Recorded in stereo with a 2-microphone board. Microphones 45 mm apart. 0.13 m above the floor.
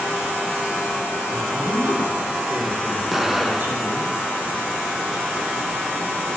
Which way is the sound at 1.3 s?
35° right (ahead or behind).